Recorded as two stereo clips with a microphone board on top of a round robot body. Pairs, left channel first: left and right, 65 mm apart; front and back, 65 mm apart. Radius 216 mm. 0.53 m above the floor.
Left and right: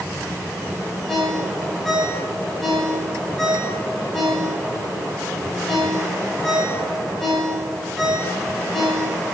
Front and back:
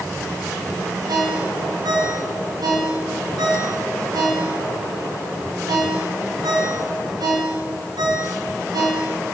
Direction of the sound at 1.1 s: 170° left.